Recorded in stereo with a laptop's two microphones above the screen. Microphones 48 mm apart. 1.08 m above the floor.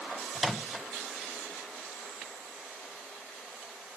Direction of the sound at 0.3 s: Centre (ahead or behind).